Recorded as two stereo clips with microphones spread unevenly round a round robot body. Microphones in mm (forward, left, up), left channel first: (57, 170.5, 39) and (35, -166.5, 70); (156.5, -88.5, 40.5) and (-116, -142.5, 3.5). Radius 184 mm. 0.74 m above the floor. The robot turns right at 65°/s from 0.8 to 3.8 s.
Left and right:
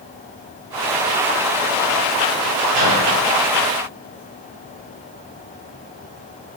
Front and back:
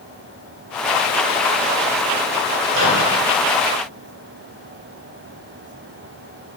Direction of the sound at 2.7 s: 155° right.